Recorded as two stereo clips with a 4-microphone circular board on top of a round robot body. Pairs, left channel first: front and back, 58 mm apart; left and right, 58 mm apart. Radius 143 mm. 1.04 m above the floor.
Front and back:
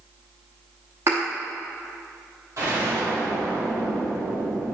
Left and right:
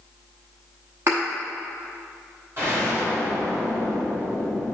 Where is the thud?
140° right, 0.6 m.